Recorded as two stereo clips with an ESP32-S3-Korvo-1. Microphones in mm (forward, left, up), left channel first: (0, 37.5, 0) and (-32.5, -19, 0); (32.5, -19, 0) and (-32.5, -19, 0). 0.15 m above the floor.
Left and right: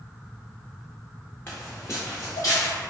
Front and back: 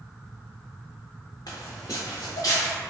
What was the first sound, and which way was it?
Footsteps, 5° left.